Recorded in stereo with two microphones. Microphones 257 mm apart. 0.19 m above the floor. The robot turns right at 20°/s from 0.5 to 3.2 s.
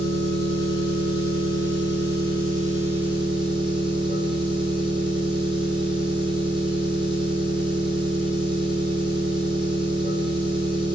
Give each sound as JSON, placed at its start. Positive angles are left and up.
{"t": 0.0, "sound": "an engine running", "azimuth_deg": -75, "distance_m": 2.5}